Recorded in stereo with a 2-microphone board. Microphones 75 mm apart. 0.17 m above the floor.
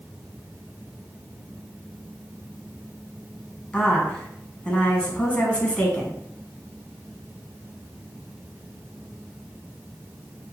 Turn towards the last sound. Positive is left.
turn(degrees=15)  # may be behind; listen again after turning